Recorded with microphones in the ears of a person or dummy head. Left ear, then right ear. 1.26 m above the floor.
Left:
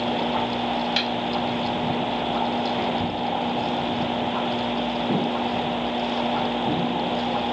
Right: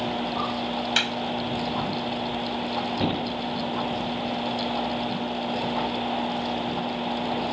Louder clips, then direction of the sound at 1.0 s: Right 4 dB; 30° right (ahead or behind).